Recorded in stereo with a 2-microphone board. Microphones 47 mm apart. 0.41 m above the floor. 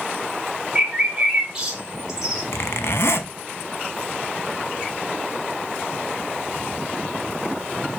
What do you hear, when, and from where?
0.8 s a bird: 15° right (ahead or behind), 1.2 m
2.5 s a zipper: 70° left (ahead or behind), 0.5 m